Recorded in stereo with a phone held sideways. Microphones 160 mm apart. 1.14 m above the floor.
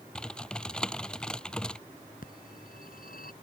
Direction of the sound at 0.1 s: 5° left (ahead or behind).